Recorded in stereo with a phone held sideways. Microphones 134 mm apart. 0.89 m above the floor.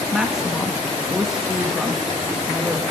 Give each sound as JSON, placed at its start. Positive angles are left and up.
{"t": 0.1, "sound": "a woman speaking", "side_deg": -5, "distance_m": 1.5}